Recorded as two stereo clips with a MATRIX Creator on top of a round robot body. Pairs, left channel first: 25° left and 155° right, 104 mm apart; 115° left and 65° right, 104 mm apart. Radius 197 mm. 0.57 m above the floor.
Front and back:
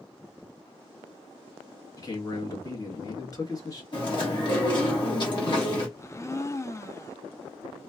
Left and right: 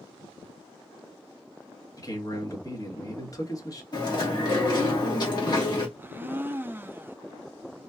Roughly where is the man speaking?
Ahead left.